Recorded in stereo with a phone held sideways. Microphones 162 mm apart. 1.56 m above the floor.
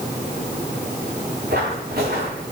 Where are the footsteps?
75° right (ahead or behind), 6 m.